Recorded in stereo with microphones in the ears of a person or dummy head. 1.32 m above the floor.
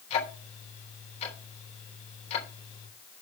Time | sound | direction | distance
0.1 | ticking | 35° left (ahead or behind) | 3.5 m